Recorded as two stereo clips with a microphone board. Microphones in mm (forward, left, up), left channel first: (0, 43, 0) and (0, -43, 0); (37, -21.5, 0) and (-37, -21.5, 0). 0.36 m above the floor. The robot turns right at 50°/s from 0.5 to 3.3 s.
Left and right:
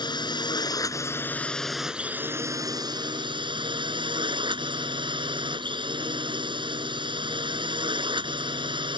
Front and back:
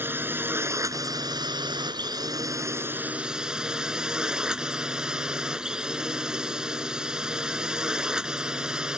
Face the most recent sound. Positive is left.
turn(degrees=-100)